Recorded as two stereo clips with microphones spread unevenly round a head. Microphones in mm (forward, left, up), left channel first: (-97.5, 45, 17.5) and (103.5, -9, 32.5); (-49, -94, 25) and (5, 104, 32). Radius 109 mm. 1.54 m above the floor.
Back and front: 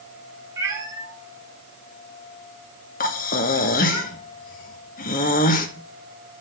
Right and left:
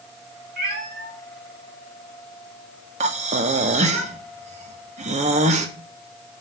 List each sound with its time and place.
0.6 s a cat meowing: 50° left, 1.6 m
3.0 s breathing: 120° left, 1.0 m